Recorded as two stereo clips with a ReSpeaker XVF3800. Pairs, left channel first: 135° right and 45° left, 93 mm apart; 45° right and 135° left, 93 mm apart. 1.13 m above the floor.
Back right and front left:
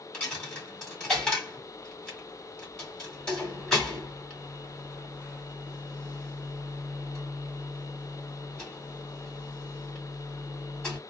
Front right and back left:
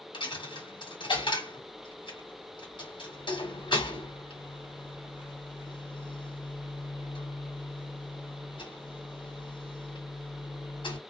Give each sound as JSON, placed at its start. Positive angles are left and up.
{"t": 0.1, "sound": "a dropped coin", "azimuth_deg": -55, "distance_m": 1.6}